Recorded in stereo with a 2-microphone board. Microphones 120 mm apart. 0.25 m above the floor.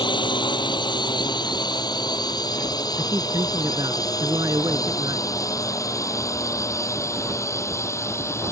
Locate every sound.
0.0 s a drone: 40° left (ahead or behind); by 8.5 s 20° left (ahead or behind)
3.0 s a man speaking: 30° right (ahead or behind)